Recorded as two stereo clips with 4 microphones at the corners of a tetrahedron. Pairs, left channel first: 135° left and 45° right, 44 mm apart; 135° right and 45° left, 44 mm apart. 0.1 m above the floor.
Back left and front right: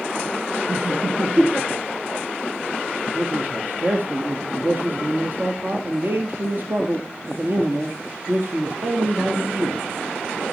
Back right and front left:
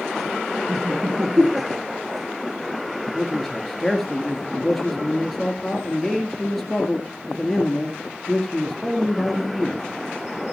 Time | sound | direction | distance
0.7 | laughter | 10° left | 3 m
3.1 | a man speaking | 45° right | 1.9 m